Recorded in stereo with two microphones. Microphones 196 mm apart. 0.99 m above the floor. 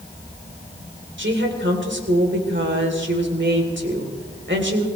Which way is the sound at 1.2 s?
70° right (ahead or behind).